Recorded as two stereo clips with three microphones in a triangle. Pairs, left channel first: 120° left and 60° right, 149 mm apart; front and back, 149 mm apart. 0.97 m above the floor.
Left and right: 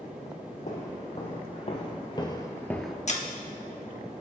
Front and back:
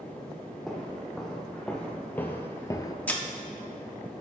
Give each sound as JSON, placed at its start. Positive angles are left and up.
{"t": 0.7, "sound": "footsteps", "azimuth_deg": 90, "distance_m": 2.5}
{"t": 3.1, "sound": "breaking glass", "azimuth_deg": 80, "distance_m": 1.1}